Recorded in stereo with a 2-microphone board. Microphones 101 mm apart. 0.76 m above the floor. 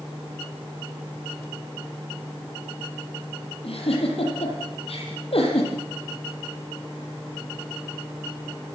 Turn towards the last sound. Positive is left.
turn(degrees=70)  # may be behind; listen again after turning